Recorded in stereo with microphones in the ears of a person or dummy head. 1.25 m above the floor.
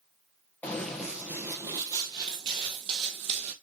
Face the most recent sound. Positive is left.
turn(degrees=-35)  # may be behind; listen again after turning